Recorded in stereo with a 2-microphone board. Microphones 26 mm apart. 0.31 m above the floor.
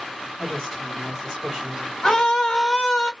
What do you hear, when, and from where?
0.4 s a woman speaking: 20° right (ahead or behind), 1.5 m
2.0 s a scream: 20° left (ahead or behind), 1.6 m